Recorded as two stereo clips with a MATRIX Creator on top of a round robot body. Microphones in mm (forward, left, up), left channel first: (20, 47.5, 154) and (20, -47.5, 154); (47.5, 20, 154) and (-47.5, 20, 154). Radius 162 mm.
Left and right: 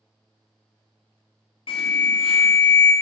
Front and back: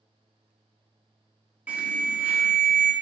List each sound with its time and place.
1.7 s an alarm: 105° left, 0.5 m